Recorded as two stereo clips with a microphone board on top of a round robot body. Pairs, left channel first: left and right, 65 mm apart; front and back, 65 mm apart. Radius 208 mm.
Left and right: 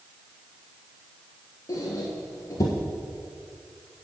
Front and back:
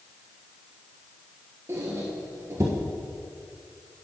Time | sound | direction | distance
1.7 | a squeak | 130° left | 1.2 m